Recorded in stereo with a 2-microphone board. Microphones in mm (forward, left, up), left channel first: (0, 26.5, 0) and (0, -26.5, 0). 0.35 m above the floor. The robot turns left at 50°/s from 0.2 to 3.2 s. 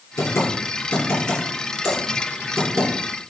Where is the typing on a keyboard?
70° left (ahead or behind), 2.5 m; by 2.9 s 60° right (ahead or behind), 2.5 m.